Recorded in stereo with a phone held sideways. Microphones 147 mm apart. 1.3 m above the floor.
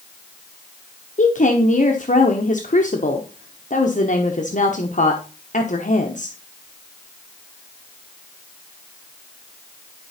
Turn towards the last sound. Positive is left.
turn(degrees=55)  # may be behind; listen again after turning